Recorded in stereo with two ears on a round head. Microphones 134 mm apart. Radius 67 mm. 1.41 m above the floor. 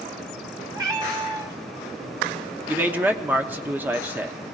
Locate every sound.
0.7 s a cat meowing: 25° right (ahead or behind), 1.2 m
2.7 s a man speaking: 10° right (ahead or behind), 0.9 m